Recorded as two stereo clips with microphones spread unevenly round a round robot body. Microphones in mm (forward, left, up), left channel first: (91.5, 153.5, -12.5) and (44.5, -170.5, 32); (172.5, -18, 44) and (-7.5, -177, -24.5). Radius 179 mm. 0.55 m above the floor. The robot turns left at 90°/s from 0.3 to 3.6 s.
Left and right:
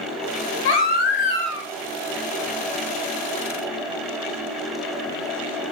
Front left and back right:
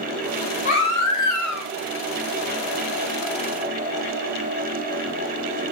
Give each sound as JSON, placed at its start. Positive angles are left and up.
{"t": 0.7, "sound": "a baby crying", "azimuth_deg": 115, "distance_m": 0.9}